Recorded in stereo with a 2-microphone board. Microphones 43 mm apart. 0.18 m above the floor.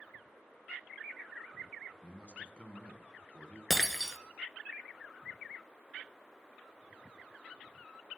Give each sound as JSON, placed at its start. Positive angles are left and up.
{"t": 2.0, "sound": "a man speaking", "side_deg": 25, "distance_m": 1.4}
{"t": 3.7, "sound": "breaking glass", "side_deg": 0, "distance_m": 1.0}